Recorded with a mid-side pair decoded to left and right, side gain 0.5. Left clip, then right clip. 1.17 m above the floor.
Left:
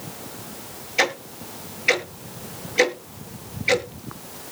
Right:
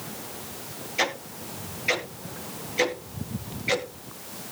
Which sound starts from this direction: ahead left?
Ticking, at 1.0 s.